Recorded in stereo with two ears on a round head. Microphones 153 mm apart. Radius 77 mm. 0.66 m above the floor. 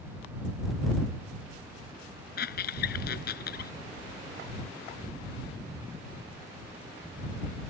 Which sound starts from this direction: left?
A squeak, at 2.4 s.